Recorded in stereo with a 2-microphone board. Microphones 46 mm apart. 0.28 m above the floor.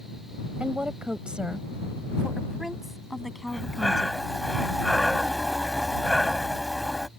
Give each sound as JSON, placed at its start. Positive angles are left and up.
{"t": 0.6, "sound": "a woman speaking", "side_deg": -30}
{"t": 3.5, "sound": "breathing", "side_deg": 0}